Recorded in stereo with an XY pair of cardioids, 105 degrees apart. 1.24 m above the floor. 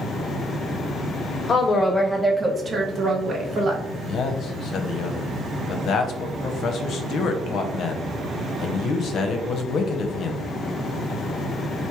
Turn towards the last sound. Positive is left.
turn(degrees=65)